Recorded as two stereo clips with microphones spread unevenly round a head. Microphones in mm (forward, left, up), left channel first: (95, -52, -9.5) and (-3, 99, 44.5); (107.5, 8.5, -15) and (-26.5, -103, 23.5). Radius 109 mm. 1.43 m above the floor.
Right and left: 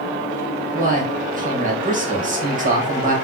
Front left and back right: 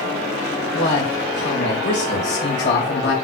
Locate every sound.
0.7 s a man speaking: 75° left, 2 m